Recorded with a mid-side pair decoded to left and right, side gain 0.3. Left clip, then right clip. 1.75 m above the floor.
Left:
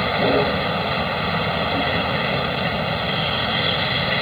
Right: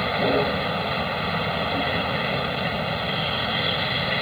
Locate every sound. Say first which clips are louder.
0.0 s a vehicle: left 3 dB; 35° left